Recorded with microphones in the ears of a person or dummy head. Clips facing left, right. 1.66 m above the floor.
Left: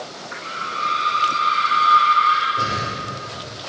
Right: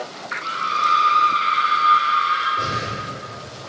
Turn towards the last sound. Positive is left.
turn(degrees=15)  # may be behind; listen again after turning